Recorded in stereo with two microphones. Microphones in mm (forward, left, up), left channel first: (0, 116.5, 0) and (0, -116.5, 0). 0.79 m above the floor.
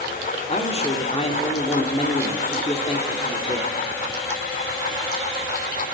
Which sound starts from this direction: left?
A man speaking, at 0.5 s.